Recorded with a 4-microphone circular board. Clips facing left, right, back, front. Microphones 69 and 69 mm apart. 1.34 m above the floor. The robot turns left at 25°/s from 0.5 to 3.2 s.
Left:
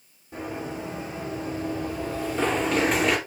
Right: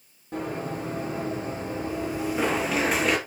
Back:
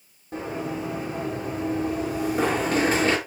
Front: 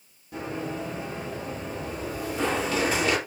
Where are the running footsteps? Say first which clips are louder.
Right 2 dB, back 2 dB; 120° right, 4.5 m; by 3.2 s straight behind, 1.5 m.